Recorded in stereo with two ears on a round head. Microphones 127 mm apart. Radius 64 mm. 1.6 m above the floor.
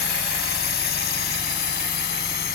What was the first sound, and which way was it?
A drone, 85° left.